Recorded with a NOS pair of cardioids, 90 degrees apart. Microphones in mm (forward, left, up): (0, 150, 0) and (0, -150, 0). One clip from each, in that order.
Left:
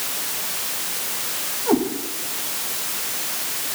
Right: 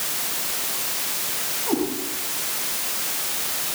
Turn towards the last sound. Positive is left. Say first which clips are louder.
# left 5 dB
turn(degrees=55)